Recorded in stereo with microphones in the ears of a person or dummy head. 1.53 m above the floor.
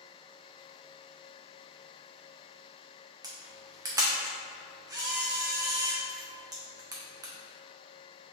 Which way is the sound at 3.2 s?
15° right (ahead or behind).